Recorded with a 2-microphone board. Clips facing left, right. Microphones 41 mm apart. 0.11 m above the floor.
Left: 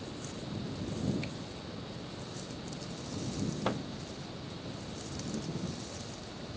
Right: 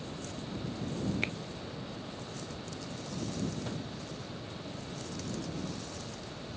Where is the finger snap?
65° right (ahead or behind).